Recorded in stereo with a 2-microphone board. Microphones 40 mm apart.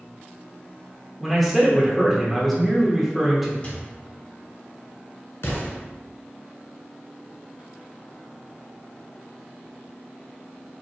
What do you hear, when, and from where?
1.2 s a man speaking: 5° right (ahead or behind), 1.0 m
3.6 s a microwave: 30° left (ahead or behind), 0.8 m
5.4 s an explosion: 70° left (ahead or behind), 1.3 m